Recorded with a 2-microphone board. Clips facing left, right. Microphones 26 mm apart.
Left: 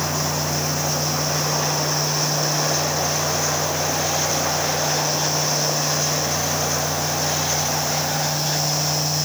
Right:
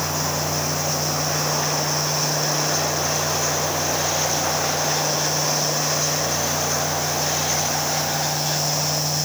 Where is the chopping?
No chopping in this recording.